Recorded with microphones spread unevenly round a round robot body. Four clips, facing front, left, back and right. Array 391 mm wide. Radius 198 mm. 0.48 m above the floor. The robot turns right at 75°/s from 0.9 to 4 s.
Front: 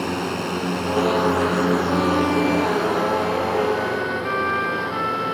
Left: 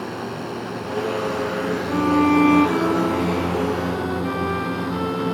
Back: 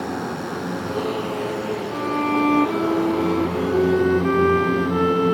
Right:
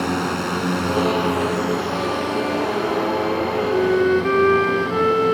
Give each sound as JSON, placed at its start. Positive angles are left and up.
{"t": 0.0, "sound": "a drone", "azimuth_deg": -70}
{"t": 1.9, "sound": "a violin", "azimuth_deg": 75}